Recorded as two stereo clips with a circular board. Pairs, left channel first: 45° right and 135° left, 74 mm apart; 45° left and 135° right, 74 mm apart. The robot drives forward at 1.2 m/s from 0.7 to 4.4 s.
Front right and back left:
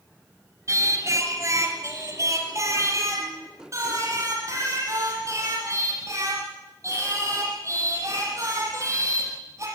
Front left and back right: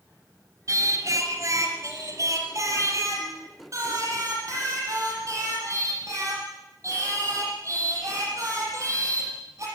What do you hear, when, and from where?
0.7 s singing: straight behind, 3 m